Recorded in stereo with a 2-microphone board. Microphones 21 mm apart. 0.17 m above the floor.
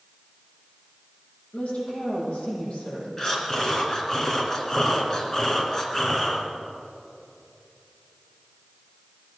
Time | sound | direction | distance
1.5 | a woman speaking | 70° left (ahead or behind) | 7 m
3.2 | breathing | 30° left (ahead or behind) | 2.5 m